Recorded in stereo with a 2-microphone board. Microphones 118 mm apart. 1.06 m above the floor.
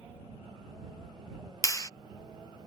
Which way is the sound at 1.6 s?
30° left (ahead or behind).